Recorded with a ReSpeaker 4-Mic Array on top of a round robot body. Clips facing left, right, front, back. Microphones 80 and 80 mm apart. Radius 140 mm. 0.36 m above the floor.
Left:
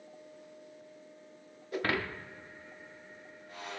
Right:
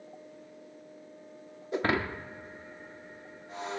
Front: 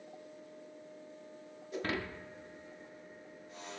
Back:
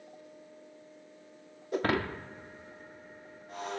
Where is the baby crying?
I don't hear a baby crying.